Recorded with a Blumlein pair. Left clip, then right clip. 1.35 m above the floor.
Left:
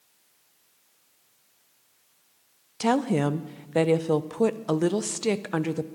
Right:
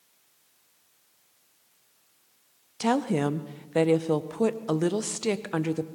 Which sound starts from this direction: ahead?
A woman speaking, at 2.8 s.